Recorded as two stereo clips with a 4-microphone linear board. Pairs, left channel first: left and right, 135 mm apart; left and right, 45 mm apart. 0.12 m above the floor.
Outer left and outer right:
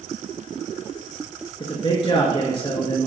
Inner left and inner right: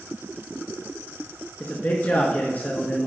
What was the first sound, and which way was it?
A man speaking, 40° left (ahead or behind).